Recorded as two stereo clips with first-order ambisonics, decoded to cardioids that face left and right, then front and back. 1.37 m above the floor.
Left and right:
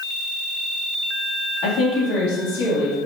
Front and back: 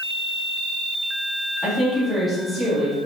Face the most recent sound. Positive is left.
turn(degrees=95)